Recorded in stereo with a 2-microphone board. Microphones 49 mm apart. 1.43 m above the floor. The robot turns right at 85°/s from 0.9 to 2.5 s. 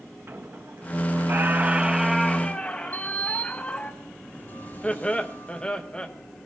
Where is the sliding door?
40° left (ahead or behind), 5 m.